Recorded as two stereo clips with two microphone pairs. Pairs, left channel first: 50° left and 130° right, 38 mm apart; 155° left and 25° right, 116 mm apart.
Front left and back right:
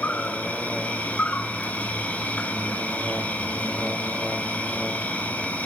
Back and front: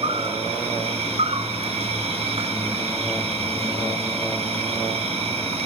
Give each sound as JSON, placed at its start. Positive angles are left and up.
{"t": 0.0, "sound": "an insect", "azimuth_deg": 5, "distance_m": 0.9}